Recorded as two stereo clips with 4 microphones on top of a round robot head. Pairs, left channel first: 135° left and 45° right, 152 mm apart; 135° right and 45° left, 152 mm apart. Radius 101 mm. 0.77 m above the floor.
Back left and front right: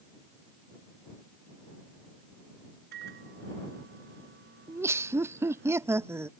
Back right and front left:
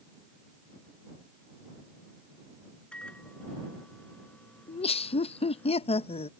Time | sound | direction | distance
2.9 | a microwave | 50° right | ?
4.7 | laughter | 110° right | ?